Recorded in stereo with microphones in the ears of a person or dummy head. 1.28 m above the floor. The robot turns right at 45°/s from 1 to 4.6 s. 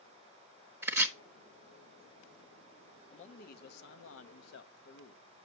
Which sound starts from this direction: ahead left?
A man speaking, at 3.1 s.